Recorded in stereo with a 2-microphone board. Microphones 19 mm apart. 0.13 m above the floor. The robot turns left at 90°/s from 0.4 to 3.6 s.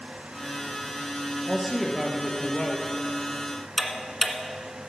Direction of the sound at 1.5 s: 150° right.